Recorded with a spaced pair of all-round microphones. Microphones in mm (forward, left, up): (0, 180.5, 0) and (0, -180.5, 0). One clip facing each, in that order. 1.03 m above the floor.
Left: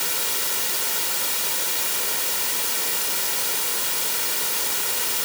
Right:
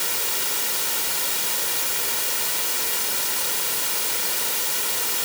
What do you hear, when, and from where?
Only background noise.